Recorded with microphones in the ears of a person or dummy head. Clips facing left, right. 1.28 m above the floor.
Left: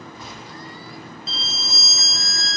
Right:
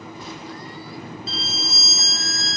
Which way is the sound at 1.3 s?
75° left (ahead or behind).